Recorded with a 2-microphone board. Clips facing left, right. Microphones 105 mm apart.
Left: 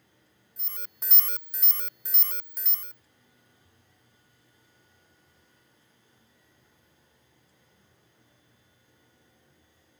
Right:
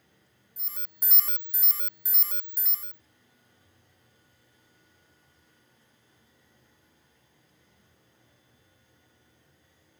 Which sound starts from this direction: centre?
An alarm, at 0.6 s.